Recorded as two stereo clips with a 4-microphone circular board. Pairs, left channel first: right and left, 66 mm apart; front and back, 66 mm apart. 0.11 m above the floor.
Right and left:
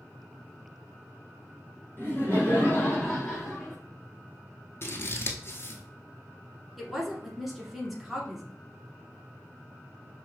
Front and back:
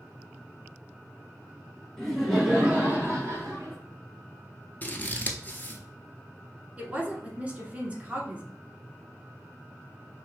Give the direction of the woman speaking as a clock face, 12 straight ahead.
6 o'clock.